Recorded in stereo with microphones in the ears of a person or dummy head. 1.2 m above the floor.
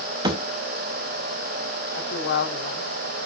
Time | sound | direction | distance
0.2 | a thud | 25° right (ahead or behind) | 0.7 m
1.9 | a woman speaking | 80° left | 4 m